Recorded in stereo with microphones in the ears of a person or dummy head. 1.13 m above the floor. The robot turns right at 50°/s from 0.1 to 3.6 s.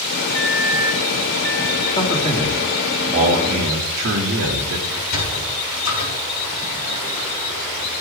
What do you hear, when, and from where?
0.3 s a microwave: 125° left, 0.9 m; by 1.9 s 160° right, 0.9 m
2.0 s a man speaking: 155° left, 2.5 m; by 4.8 s 125° right, 2.5 m
4.9 s a sliding door: 70° left (ahead or behind), 4 m